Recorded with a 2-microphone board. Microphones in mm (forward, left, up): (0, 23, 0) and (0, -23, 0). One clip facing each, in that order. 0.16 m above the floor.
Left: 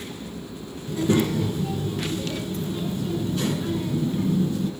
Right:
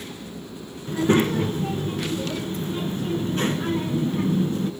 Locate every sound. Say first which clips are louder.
0.9 s a child speaking: right 2 dB; 40° right (ahead or behind), 1.3 m